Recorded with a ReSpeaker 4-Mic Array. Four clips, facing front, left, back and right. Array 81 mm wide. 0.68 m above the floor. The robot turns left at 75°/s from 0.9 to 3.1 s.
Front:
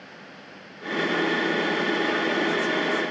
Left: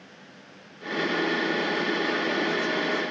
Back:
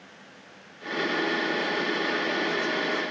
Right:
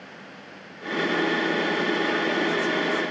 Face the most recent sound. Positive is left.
No sound to turn to.